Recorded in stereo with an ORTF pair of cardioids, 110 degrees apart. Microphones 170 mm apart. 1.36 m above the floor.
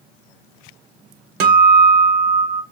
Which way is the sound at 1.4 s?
70° right.